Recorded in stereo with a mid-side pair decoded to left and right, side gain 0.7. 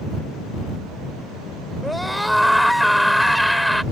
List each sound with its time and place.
1.8 s a scream: straight ahead